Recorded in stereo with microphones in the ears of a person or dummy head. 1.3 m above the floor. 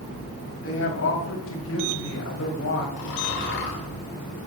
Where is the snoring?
75° left (ahead or behind), 3.5 m.